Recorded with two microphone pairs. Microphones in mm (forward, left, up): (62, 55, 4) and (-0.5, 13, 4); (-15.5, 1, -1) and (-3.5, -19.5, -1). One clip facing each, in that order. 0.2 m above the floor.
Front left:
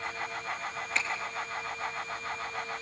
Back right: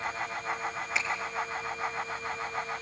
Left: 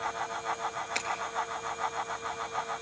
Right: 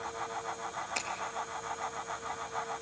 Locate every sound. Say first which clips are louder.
0.9 s a finger snap: front left 1 dB, left 2 dB; 130° left, 3.5 m